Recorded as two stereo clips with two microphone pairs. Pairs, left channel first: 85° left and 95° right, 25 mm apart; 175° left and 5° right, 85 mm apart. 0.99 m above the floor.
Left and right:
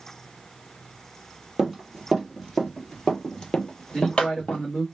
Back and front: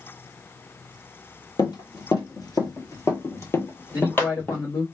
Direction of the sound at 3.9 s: 145° left.